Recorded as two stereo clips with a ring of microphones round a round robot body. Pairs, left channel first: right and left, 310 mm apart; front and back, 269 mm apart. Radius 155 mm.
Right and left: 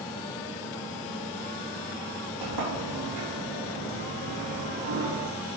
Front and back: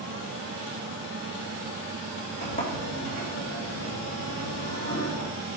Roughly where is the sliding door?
Ahead left.